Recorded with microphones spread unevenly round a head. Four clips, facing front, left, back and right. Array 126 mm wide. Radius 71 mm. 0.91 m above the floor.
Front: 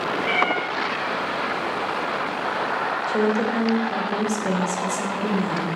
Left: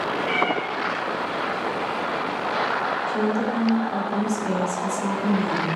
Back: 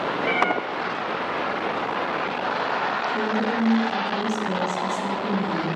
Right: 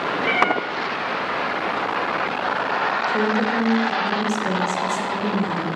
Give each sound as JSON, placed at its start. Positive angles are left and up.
{"t": 0.2, "sound": "a cat meowing", "azimuth_deg": -85, "distance_m": 5.5}
{"t": 3.1, "sound": "a woman speaking", "azimuth_deg": -25, "distance_m": 4.0}